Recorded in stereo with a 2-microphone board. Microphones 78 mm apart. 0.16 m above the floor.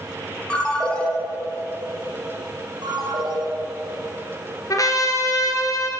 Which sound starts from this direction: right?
A ringtone, at 2.8 s.